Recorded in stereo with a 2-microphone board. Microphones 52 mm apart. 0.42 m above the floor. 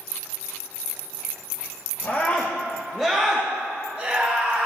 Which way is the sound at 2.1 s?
40° left (ahead or behind).